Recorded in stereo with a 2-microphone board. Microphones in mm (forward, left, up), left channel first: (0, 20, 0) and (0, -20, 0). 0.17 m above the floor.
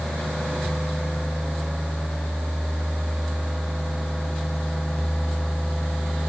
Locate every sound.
Only background noise.